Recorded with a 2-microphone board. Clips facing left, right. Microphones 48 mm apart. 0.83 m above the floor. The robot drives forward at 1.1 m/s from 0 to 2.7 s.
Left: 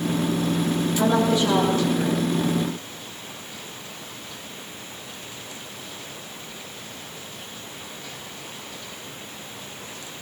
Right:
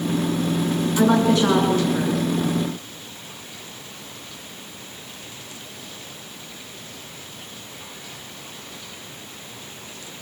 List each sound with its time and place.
1.0 s a woman speaking: 80° right, 9.5 m; by 2.2 s 75° right (ahead or behind), 9.5 m